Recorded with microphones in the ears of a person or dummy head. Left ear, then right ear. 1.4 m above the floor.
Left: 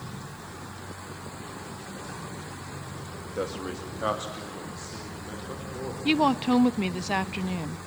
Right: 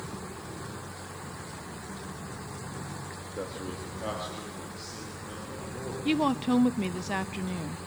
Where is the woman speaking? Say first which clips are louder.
Left 4 dB; 20° left (ahead or behind), 0.5 m.